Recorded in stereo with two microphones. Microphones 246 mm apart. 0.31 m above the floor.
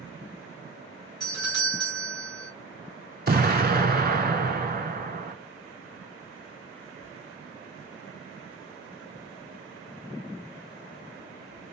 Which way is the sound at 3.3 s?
40° right (ahead or behind).